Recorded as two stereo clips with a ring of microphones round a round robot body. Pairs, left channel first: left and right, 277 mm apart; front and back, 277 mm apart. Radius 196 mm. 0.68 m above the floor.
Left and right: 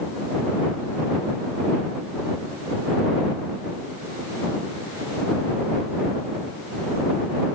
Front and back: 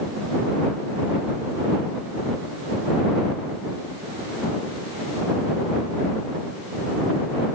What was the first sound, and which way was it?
Only background noise.